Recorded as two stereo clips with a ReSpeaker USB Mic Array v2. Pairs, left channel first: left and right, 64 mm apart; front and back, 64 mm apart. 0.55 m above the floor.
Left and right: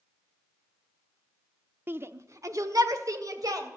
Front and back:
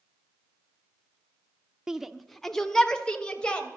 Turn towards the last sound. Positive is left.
turn(degrees=-75)